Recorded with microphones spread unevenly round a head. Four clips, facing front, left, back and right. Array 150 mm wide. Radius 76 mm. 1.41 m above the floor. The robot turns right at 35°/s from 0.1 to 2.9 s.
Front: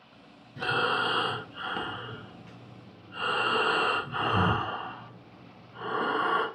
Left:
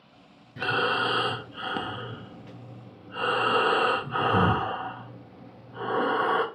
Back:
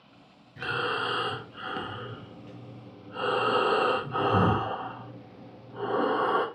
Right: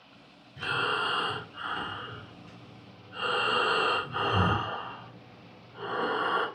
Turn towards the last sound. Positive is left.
turn(degrees=140)